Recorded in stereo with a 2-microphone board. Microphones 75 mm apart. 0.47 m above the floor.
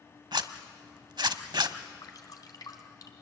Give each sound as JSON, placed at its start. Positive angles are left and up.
{"t": 0.3, "sound": "a zipper", "side_deg": -80, "distance_m": 0.8}
{"t": 2.0, "sound": "dripping", "side_deg": 55, "distance_m": 2.0}